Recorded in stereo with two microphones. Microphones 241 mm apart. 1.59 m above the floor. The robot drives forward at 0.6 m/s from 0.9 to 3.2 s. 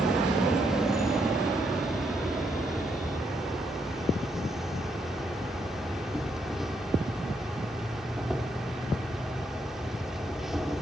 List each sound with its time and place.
0.0 s an insect: centre (ahead or behind), 1.0 m